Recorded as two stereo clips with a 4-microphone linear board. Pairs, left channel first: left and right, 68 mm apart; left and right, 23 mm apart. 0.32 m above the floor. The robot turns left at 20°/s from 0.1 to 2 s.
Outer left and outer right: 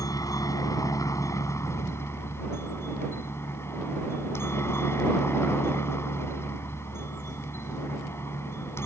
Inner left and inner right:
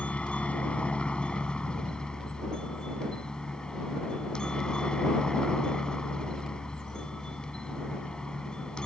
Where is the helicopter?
85° left; by 8.9 s 45° left.